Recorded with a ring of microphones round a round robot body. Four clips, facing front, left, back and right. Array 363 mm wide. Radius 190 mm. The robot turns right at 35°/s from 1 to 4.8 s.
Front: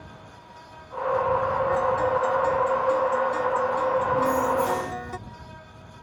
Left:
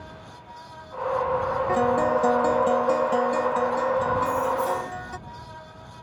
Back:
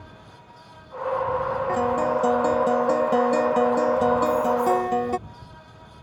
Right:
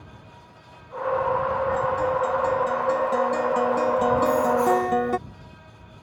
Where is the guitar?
120° left; by 5.2 s 130° right.